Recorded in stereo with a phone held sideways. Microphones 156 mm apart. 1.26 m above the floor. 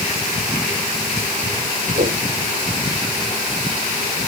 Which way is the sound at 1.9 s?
70° right (ahead or behind).